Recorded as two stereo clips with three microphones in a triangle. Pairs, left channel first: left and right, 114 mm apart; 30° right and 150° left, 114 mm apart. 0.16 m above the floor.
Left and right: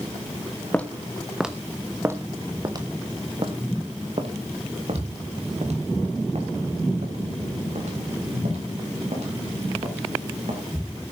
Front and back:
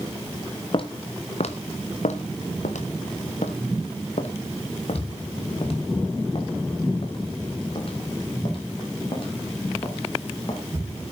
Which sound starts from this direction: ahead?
Footsteps, at 0.7 s.